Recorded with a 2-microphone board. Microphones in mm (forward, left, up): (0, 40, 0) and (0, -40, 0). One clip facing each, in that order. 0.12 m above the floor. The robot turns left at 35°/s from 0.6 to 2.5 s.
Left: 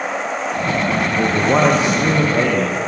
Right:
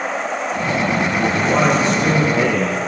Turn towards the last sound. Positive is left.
turn(degrees=-5)